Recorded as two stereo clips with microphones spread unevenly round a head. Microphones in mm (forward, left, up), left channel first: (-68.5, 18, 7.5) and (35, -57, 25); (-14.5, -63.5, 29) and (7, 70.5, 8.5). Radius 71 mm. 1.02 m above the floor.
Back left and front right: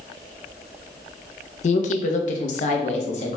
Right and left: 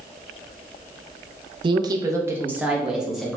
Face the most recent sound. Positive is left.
turn(degrees=170)